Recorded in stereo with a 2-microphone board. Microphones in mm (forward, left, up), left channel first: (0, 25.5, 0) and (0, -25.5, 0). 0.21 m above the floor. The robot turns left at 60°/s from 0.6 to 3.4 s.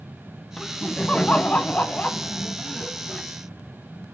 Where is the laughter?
170° left, 1.1 m; by 3.2 s 10° left, 1.1 m.